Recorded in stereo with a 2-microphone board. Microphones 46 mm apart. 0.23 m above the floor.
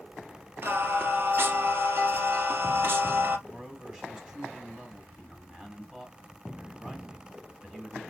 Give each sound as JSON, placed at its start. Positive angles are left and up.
{"t": 0.6, "sound": "singing", "side_deg": -50, "distance_m": 1.5}
{"t": 3.5, "sound": "a man speaking", "side_deg": -10, "distance_m": 2.0}